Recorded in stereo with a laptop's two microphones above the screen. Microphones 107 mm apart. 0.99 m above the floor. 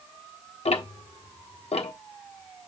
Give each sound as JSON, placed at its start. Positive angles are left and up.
{"t": 0.7, "sound": "ticking", "side_deg": 75, "distance_m": 1.2}